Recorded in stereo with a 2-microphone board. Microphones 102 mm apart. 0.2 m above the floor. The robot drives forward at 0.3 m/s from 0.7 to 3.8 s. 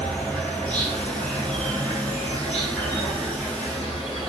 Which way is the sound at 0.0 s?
15° left (ahead or behind).